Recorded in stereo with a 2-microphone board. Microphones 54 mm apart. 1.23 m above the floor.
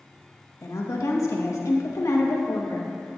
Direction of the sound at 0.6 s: 85° left.